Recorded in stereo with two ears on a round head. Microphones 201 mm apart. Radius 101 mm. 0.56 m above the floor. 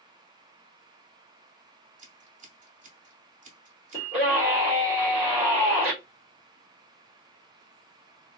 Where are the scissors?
35° right (ahead or behind), 2 m.